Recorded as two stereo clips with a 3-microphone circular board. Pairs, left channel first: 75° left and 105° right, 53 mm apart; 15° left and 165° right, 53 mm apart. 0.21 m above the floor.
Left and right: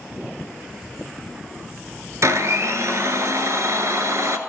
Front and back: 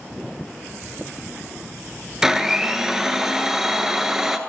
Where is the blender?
85° right, 0.8 m.